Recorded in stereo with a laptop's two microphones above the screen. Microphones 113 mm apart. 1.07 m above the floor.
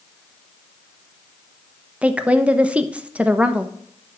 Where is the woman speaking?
10° right (ahead or behind), 0.9 m.